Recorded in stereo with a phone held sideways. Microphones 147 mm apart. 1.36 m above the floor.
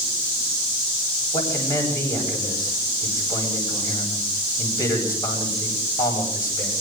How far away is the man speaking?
About 10 m.